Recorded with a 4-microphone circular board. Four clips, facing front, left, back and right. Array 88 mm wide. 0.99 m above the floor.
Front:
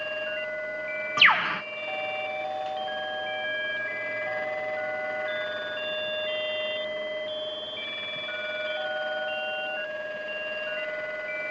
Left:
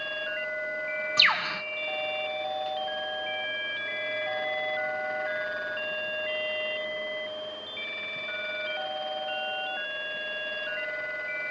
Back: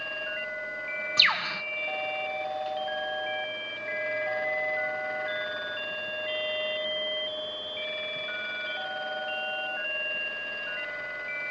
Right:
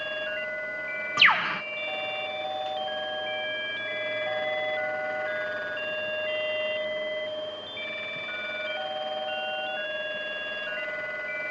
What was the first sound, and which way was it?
A bird, 30° right.